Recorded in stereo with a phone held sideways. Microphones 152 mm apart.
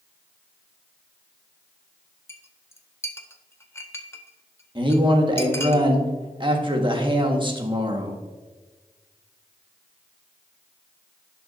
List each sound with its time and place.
2.3 s a clink: 15° left (ahead or behind), 0.8 m
4.8 s a man speaking: 30° right (ahead or behind), 1.4 m